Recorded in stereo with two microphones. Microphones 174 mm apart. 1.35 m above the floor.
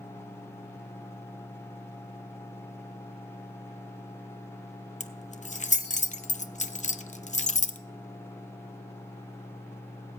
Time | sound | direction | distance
5.0 | keys jangling | 45° left (ahead or behind) | 0.5 m